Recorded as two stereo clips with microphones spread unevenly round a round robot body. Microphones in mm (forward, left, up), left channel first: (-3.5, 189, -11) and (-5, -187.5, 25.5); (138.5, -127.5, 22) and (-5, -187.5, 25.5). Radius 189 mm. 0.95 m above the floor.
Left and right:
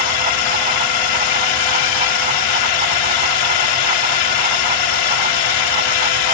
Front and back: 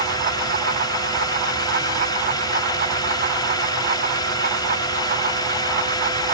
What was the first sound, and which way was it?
A drone, 95° left.